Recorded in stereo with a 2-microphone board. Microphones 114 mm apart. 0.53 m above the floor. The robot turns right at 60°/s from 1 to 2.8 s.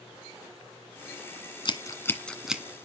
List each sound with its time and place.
1.6 s scissors: 45° left (ahead or behind), 1.5 m; by 2.6 s 10° right (ahead or behind), 1.5 m